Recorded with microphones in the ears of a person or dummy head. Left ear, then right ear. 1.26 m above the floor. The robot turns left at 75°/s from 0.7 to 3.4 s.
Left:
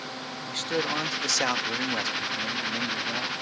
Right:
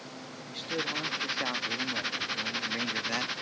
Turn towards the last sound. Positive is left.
turn(degrees=-55)